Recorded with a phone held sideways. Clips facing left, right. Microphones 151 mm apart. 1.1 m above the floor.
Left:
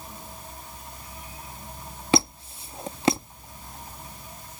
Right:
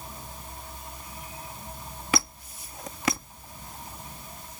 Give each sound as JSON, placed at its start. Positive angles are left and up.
{"t": 2.1, "sound": "a squeak", "side_deg": 30}